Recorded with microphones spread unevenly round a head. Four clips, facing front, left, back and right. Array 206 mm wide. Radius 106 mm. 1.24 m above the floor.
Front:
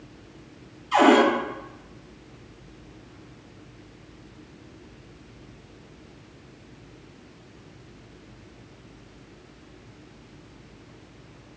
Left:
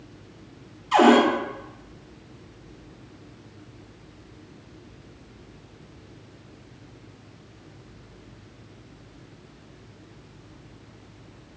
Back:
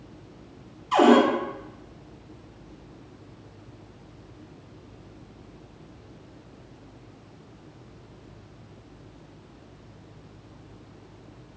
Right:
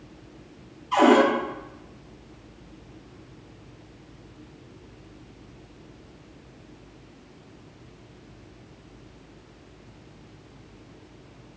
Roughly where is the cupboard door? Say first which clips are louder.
Left 1 dB, even; behind left.